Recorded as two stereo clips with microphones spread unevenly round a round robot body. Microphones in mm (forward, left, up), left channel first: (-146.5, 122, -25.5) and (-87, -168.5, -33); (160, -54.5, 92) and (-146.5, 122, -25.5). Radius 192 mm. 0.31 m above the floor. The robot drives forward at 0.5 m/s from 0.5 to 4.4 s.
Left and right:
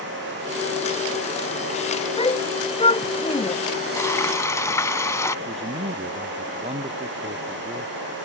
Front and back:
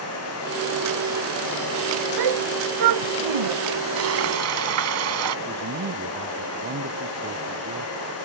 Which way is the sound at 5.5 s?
150° right.